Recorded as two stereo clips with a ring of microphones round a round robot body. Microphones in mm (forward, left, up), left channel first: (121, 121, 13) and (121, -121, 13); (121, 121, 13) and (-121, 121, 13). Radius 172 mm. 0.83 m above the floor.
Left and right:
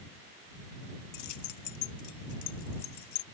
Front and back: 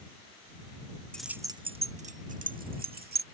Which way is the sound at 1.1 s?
85° left.